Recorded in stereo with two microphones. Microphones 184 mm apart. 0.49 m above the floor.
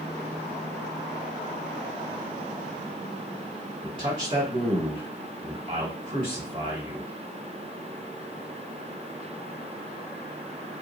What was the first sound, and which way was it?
A man speaking, 30° right (ahead or behind).